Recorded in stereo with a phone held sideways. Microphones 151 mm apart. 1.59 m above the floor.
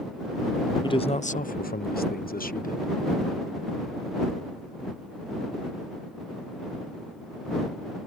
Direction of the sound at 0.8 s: 30° left (ahead or behind).